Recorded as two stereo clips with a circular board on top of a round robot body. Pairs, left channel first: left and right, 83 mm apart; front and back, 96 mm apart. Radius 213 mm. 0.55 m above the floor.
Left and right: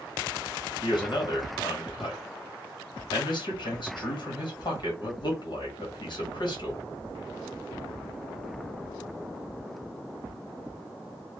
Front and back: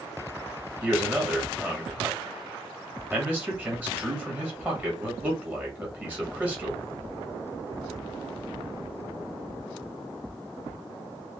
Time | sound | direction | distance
0.8 | a man speaking | 110° left | 1.3 m